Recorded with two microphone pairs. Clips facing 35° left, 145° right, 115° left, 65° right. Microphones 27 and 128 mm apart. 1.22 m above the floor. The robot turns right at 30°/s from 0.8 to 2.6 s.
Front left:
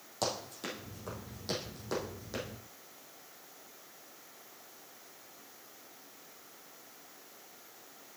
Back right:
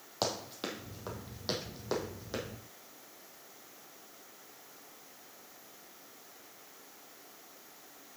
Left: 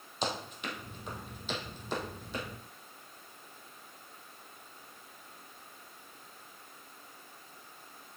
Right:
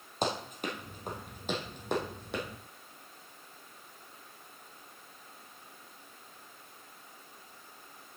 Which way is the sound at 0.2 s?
90° right.